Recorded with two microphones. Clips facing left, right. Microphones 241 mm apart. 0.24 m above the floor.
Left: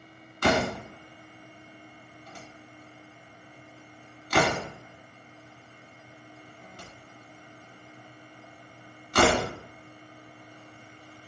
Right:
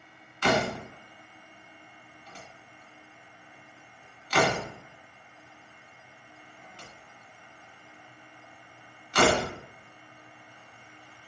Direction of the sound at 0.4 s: 55° left (ahead or behind).